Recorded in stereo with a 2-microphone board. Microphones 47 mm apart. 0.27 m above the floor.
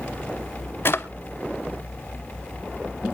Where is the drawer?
55° left (ahead or behind), 0.7 m.